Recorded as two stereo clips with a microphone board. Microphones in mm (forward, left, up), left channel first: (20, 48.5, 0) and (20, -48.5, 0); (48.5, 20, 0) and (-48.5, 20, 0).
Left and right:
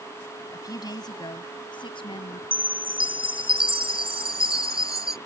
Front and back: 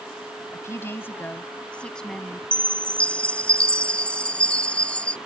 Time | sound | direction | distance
0.5 | a woman speaking | 50° left | ?
2.5 | a chime | 80° right | ?